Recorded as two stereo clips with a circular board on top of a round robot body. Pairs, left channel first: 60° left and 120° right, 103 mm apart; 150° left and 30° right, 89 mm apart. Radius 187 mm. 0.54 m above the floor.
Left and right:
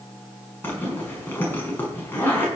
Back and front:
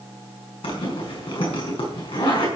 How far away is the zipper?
About 6 m.